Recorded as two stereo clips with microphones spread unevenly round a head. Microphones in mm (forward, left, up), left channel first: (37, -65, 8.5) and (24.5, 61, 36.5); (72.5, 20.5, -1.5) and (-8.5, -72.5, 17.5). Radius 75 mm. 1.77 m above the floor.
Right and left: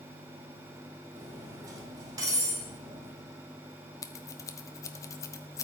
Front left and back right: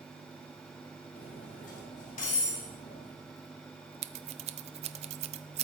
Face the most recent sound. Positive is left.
turn(degrees=-160)